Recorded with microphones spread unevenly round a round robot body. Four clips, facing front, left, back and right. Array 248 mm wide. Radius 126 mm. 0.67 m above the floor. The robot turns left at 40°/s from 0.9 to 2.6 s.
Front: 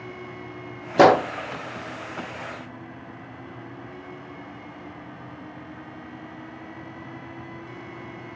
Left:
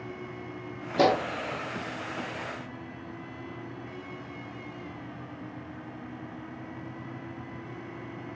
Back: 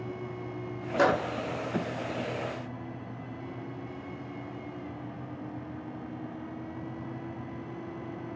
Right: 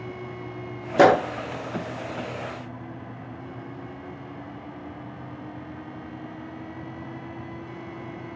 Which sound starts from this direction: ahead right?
A gunshot, at 1.0 s.